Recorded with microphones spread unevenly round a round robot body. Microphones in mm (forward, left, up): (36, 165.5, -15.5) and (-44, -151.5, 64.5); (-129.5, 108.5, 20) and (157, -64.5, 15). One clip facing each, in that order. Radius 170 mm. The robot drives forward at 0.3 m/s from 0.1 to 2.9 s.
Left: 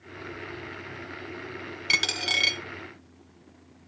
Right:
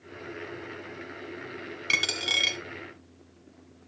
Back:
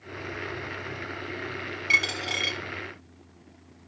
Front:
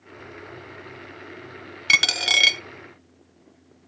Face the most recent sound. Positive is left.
turn(degrees=-10)